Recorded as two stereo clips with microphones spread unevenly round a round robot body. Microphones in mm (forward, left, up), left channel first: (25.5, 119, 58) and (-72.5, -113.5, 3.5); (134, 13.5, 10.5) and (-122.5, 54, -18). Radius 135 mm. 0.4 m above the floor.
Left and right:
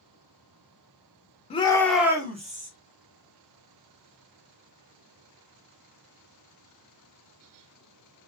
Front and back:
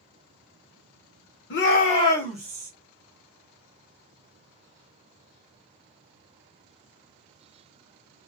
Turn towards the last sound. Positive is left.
turn(degrees=-130)